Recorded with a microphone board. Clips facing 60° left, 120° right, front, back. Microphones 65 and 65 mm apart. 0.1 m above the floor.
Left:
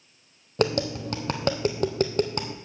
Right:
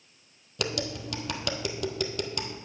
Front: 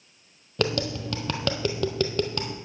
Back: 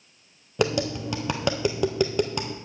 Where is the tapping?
105° left, 1.2 m.